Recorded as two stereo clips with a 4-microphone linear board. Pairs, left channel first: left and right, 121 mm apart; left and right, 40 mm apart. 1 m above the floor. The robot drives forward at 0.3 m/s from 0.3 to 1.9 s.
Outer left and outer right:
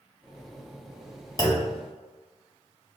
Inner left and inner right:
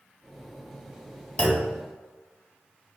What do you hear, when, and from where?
1.4 s a clunk: 30° left (ahead or behind), 0.7 m